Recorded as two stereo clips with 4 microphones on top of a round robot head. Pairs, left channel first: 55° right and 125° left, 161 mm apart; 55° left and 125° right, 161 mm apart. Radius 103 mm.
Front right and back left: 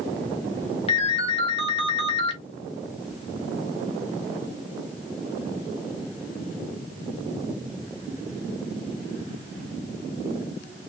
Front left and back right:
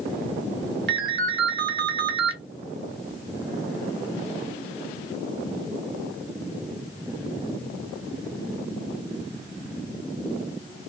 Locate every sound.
0.9 s a ringtone: 110° right, 0.8 m